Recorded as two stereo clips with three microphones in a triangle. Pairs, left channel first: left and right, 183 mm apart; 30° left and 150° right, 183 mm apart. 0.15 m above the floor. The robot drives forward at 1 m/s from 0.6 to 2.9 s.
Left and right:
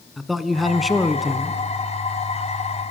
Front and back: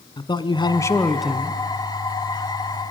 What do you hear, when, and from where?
0.2 s a man speaking: straight ahead, 1.2 m; by 1.6 s straight behind, 1.1 m